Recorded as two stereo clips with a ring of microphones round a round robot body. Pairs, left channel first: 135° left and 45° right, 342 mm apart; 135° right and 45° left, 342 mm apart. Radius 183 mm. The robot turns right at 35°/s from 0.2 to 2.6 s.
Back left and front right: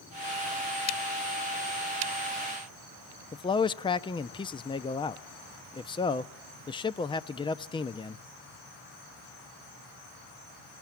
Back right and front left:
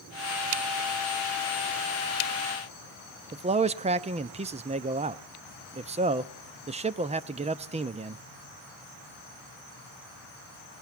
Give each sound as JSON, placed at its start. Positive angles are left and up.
{"t": 3.3, "sound": "a man speaking", "azimuth_deg": 80, "distance_m": 0.6}